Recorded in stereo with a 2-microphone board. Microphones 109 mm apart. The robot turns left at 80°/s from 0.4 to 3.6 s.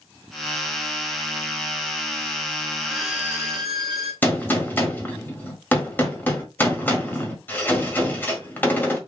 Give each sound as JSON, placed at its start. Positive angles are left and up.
{"t": 2.8, "sound": "a violin", "azimuth_deg": 5, "distance_m": 3.0}
{"t": 4.2, "sound": "a gunshot", "side_deg": 15, "distance_m": 1.5}